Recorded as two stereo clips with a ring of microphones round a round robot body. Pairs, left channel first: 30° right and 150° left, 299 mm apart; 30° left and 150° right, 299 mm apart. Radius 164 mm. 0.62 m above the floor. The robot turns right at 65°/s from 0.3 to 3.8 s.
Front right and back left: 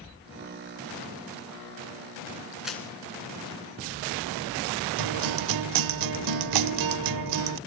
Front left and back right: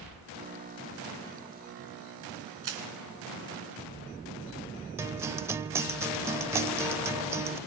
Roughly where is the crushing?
Behind right.